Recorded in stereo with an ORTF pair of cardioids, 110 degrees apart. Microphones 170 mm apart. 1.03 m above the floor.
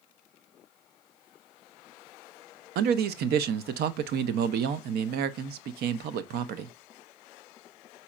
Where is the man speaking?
70° right, 0.6 m.